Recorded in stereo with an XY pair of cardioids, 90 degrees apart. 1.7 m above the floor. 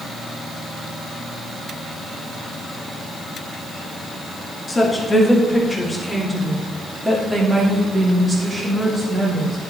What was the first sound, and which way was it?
A woman speaking, 20° left.